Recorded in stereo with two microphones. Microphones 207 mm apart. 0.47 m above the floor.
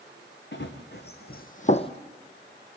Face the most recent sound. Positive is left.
turn(degrees=25)  # may be behind; listen again after turning